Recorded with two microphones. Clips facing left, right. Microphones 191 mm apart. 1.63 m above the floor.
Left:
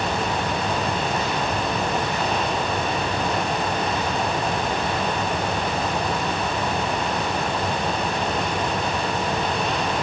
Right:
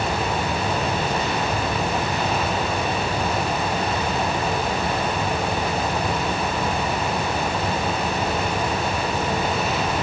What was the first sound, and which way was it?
Only background noise.